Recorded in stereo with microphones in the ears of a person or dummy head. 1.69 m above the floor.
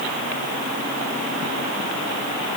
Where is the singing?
I don't hear singing.